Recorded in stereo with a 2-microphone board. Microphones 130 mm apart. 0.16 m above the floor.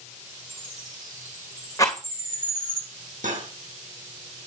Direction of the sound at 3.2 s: 75° right (ahead or behind).